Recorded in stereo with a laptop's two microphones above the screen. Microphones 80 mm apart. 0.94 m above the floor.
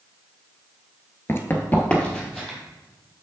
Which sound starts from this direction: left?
Running footsteps, at 1.3 s.